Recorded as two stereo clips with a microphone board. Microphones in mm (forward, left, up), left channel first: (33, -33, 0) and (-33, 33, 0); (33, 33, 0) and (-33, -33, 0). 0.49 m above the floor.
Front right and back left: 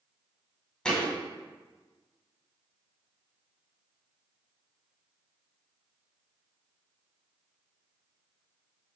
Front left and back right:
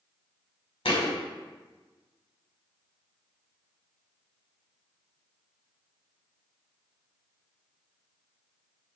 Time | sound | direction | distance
0.8 | a thud | 35° left | 1.1 m